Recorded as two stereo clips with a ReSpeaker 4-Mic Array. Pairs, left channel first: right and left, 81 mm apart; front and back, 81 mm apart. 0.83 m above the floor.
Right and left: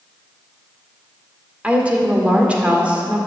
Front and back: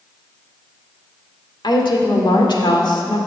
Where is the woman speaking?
15° left, 1.9 m.